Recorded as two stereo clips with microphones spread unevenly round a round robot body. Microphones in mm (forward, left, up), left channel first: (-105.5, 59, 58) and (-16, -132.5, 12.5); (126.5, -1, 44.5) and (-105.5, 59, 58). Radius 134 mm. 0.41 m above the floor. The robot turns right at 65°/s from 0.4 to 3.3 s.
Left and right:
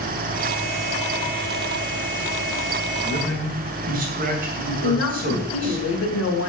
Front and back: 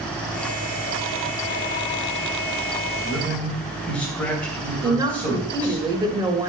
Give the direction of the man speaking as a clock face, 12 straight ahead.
4 o'clock.